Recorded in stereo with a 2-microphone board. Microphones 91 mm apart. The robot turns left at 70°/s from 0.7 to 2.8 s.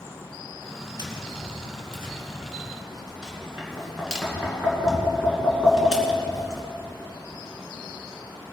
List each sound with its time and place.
1.0 s tapping: 45° right (ahead or behind), 2.5 m; by 6.7 s 5° right (ahead or behind), 2.5 m